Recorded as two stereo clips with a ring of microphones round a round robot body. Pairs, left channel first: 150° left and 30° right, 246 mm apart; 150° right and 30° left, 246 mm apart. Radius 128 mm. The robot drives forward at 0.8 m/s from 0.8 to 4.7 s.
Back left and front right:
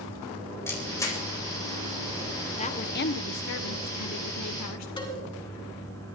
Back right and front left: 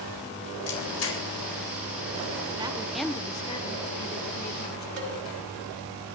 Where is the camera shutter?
130° right, 4 m; by 1.2 s 135° right, 4 m.